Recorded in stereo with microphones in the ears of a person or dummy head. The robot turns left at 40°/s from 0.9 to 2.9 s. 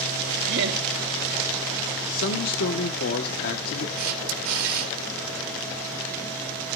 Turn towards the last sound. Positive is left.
turn(degrees=-85)